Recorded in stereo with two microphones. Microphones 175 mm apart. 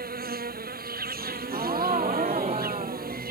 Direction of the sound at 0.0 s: 60° right (ahead or behind).